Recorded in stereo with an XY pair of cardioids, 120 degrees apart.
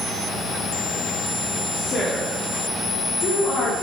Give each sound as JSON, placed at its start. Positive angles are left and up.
{"t": 1.7, "sound": "a woman speaking", "azimuth_deg": 30, "distance_m": 3.5}